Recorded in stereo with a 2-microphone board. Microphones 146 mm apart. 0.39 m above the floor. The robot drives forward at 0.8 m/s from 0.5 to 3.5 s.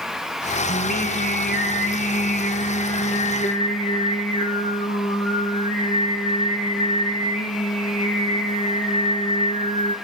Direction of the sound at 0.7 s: 75° left (ahead or behind).